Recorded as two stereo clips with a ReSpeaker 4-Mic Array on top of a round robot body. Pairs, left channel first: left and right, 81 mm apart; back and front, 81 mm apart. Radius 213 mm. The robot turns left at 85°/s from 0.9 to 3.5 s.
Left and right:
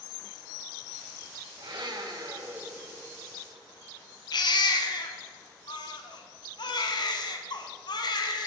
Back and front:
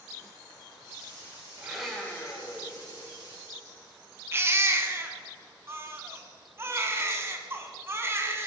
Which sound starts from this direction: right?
A blender, at 1.6 s.